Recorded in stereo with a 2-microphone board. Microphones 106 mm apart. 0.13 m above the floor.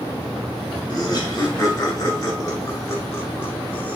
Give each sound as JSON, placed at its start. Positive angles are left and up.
{"t": 0.9, "sound": "laughter", "side_deg": 50, "distance_m": 3.0}